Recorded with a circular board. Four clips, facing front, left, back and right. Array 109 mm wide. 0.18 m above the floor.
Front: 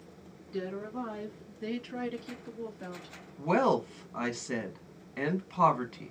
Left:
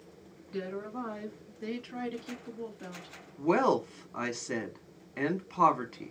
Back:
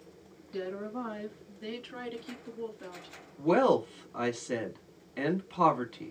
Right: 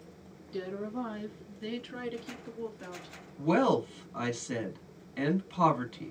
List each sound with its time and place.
0.5 s a woman speaking: 95° left, 2.0 m; by 3.1 s 35° right, 1.7 m
3.4 s a woman speaking: 60° left, 1.0 m